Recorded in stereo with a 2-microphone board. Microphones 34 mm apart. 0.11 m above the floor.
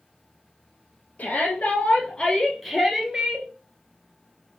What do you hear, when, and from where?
1.2 s a shout: 55° left (ahead or behind), 2.5 m; by 3.5 s 30° right (ahead or behind), 1.8 m